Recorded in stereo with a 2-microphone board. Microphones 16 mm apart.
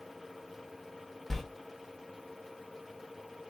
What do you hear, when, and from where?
1.3 s a sliding door: 20° left (ahead or behind), 0.8 m